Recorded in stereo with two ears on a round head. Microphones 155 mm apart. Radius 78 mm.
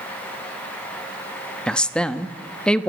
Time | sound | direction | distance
1.7 | a woman speaking | 5° left (ahead or behind) | 1.0 m